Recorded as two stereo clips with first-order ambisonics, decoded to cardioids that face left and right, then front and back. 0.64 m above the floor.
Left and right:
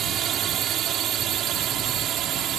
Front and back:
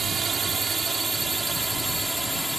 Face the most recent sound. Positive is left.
turn(degrees=-95)